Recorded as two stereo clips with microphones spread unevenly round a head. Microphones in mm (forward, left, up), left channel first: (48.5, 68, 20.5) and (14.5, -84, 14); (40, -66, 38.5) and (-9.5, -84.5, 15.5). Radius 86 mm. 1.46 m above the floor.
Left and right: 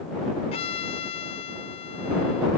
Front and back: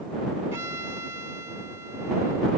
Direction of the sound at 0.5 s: 135° left.